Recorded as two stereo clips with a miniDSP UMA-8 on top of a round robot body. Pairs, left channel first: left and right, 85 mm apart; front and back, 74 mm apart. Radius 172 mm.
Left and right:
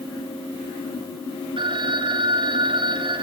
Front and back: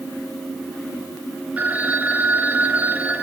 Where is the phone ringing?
110° right, 4 m.